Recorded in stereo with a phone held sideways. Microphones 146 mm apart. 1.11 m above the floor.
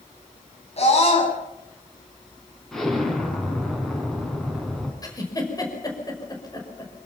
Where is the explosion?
Centre (ahead or behind), 5 m.